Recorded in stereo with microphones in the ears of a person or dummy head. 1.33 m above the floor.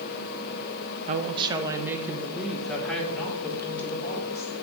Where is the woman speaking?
40° right (ahead or behind), 0.6 m; by 4.5 s 15° left (ahead or behind), 2 m.